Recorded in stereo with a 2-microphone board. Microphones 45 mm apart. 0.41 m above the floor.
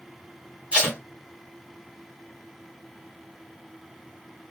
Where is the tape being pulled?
25° right (ahead or behind), 2 m.